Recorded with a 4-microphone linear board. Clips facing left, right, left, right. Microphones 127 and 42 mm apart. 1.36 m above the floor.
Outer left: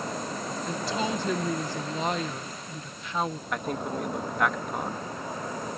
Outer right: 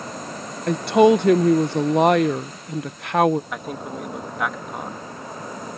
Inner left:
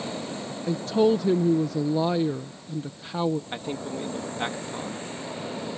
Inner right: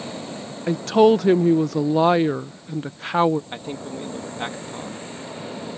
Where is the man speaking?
5° right (ahead or behind).